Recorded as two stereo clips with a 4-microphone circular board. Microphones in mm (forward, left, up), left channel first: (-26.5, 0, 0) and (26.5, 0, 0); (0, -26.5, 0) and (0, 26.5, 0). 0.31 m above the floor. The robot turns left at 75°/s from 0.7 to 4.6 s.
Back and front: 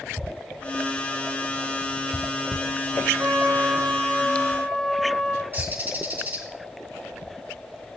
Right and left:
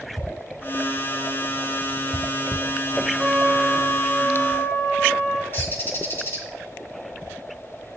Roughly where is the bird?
Ahead right.